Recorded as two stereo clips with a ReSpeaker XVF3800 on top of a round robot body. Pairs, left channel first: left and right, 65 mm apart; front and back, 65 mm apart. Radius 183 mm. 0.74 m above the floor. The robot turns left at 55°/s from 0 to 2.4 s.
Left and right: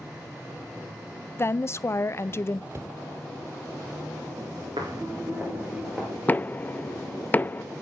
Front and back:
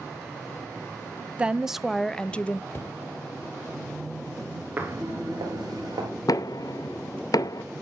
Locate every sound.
1.4 s a woman speaking: 115° left, 0.8 m; by 2.6 s 60° left, 0.8 m
2.7 s a cupboard door: 50° right, 1.0 m
4.8 s footsteps: 120° right, 0.8 m; by 6.1 s 175° right, 1.4 m
6.3 s knocking: 25° left, 0.7 m